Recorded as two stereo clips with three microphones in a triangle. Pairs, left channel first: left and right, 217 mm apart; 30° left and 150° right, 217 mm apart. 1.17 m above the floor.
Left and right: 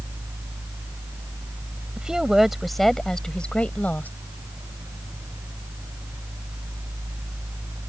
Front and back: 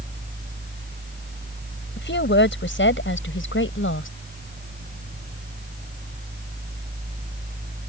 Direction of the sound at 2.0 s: 5° right.